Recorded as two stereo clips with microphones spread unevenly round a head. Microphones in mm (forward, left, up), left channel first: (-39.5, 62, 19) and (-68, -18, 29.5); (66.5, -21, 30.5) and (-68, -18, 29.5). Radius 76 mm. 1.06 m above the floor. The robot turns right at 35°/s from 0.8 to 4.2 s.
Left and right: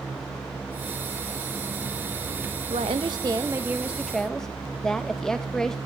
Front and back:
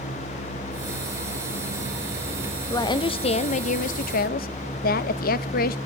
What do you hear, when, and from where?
2.7 s a woman speaking: 65° right, 0.7 m; by 5.8 s 15° right, 0.7 m